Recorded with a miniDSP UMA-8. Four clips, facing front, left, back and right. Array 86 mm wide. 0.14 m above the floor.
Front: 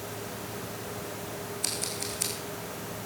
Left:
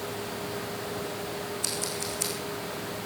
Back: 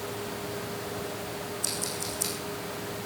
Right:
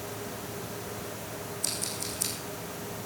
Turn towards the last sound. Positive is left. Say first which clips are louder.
# left 4 dB, back 2 dB
turn(degrees=30)